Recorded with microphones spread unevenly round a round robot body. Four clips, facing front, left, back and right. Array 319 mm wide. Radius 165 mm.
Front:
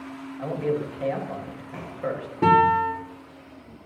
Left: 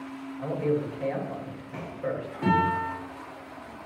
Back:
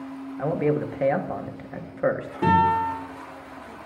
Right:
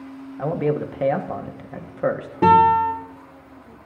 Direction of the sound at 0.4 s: 120° right.